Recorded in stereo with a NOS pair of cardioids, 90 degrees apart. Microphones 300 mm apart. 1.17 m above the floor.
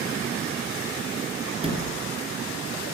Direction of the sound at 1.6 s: 20° right.